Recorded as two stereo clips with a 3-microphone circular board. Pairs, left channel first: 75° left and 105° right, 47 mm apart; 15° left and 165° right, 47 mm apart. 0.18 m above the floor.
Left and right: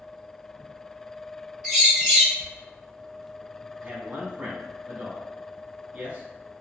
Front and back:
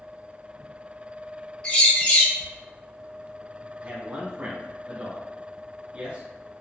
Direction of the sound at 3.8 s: 140° right.